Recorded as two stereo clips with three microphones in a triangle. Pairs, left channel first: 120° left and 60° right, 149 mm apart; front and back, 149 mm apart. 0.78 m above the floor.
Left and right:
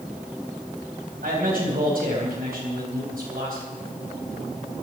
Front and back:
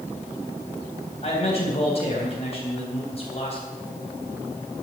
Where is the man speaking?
45° right, 4 m.